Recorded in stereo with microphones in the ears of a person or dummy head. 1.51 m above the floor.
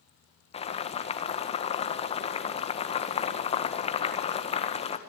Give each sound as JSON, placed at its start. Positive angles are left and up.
{"t": 0.5, "sound": "boiling", "side_deg": 25, "distance_m": 1.6}